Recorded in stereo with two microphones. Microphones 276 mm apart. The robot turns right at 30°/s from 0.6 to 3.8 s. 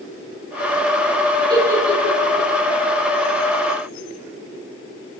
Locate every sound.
1.5 s a giggle: 15° right (ahead or behind), 1.9 m; by 2.5 s 10° left (ahead or behind), 1.9 m